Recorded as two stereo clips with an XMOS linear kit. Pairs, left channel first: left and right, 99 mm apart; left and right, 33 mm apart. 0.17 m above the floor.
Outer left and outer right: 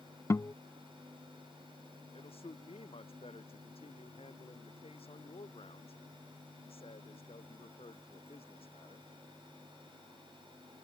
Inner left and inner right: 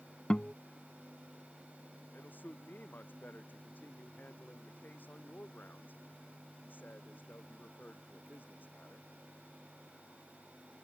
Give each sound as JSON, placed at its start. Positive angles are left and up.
{"t": 0.3, "sound": "a guitar", "side_deg": 30}
{"t": 2.1, "sound": "a man speaking", "side_deg": 80}